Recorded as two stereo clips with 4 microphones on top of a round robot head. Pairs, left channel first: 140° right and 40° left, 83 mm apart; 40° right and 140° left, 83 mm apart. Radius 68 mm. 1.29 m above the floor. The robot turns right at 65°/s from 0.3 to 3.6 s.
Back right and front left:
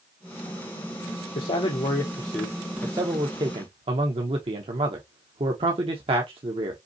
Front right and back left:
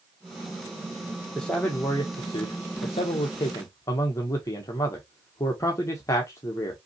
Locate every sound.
1.4 s a man speaking: 125° right, 0.9 m; by 6.8 s 20° left, 0.9 m